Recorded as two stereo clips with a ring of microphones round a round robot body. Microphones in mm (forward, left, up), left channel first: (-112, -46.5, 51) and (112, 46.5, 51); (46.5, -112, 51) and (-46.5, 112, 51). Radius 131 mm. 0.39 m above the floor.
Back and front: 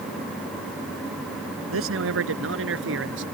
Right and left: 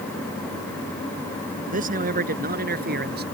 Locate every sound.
1.7 s a man speaking: 55° left; by 3.2 s 60° left